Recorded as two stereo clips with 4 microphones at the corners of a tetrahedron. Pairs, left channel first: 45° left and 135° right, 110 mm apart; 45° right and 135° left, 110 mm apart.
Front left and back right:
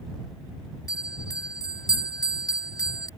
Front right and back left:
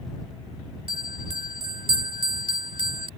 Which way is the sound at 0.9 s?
100° left.